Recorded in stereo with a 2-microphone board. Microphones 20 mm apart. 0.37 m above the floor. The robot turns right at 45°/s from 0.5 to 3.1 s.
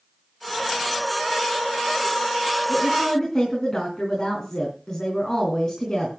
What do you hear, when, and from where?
2.7 s a woman speaking: 40° left (ahead or behind), 4.5 m; by 6.1 s 25° left (ahead or behind), 4.5 m